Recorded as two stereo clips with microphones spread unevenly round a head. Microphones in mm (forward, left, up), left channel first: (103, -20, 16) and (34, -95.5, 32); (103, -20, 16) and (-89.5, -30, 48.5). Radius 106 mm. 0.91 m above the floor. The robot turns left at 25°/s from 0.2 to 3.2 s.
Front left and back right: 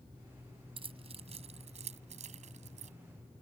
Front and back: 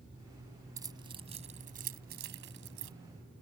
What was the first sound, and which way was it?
Keys jangling, 105° right.